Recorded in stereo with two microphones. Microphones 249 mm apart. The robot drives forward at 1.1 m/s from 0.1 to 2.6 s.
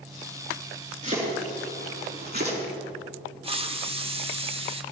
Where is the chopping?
30° right (ahead or behind), 4.5 m; by 2.6 s 45° right (ahead or behind), 3.5 m.